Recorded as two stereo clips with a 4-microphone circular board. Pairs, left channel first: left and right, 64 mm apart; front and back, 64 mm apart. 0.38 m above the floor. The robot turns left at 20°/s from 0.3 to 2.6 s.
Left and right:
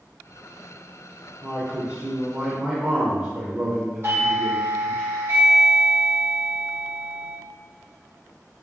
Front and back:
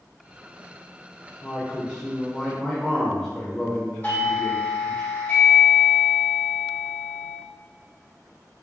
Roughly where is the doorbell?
Ahead right.